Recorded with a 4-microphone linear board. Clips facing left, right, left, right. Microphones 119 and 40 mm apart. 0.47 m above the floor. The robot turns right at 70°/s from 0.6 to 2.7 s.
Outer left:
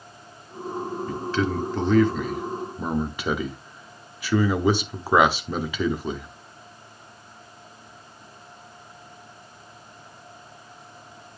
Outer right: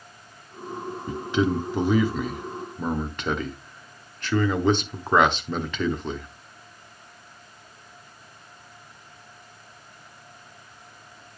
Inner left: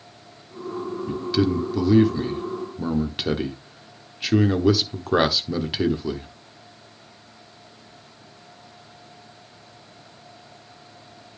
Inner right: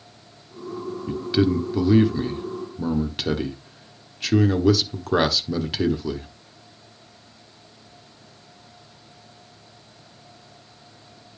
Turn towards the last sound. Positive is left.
turn(degrees=5)  # may be behind; listen again after turning